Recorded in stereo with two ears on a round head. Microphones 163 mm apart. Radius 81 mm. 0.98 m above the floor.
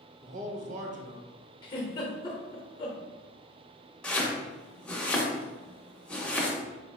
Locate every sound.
0.2 s a man speaking: 40° right (ahead or behind), 0.7 m
1.6 s a giggle: 25° left (ahead or behind), 0.9 m
4.0 s chopping: 5° left (ahead or behind), 0.7 m